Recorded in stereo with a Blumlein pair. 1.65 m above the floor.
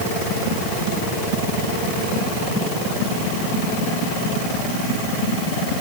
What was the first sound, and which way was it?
Only background noise.